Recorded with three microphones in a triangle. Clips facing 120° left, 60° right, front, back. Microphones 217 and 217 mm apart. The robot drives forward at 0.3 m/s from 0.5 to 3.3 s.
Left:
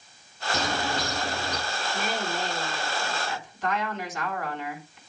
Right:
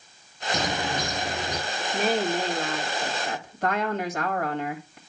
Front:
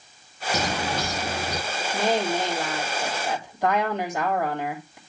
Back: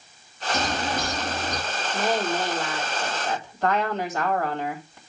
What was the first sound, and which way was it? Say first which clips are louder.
A bird: right 1 dB, even; 15° left.